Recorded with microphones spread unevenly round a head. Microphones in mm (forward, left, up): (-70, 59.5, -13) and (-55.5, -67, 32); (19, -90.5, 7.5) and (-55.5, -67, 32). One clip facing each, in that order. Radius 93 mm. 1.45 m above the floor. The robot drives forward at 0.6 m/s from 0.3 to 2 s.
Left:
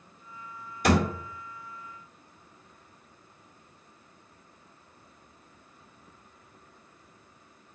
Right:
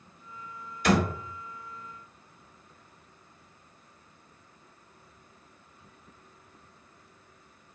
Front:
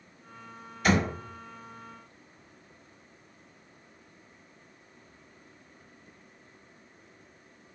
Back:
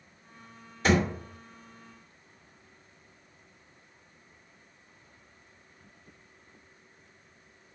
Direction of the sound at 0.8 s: 145° left.